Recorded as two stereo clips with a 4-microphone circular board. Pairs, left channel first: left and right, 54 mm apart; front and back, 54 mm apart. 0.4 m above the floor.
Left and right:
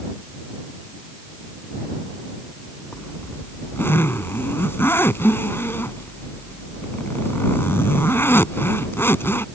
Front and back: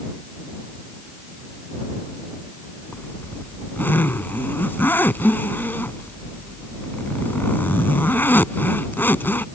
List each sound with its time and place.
2.9 s a zipper: 50° left